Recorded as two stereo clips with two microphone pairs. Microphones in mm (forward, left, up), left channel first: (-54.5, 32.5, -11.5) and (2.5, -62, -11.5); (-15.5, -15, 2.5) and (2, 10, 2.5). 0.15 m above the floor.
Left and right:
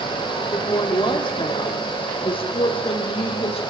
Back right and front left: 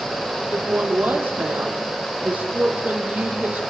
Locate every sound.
0.5 s a woman speaking: 70° left, 6 m; by 3.6 s 90° left, 5.5 m